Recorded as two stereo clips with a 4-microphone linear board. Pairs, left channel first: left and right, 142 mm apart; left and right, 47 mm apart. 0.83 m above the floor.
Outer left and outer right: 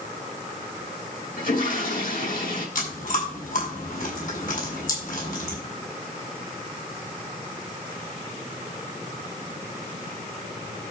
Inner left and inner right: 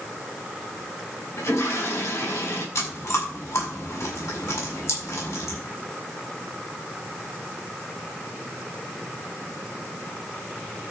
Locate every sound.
1.4 s a toilet flushing: 60° left (ahead or behind), 9 m
2.8 s chewing: 60° left (ahead or behind), 6 m